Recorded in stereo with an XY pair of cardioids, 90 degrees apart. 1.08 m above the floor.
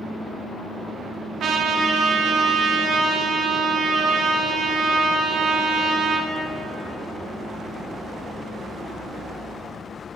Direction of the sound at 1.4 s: 70° right.